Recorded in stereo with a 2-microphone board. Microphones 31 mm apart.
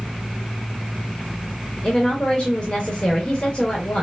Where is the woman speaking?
30° left (ahead or behind), 1.2 m.